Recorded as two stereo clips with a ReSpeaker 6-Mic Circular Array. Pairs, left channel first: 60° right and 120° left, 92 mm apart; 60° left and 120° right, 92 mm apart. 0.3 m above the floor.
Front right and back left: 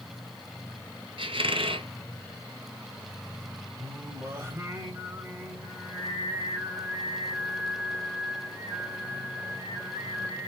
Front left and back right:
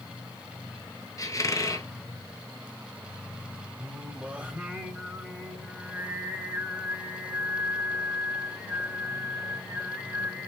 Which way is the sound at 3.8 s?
170° left.